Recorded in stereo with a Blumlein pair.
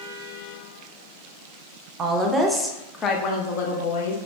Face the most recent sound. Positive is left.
turn(degrees=65)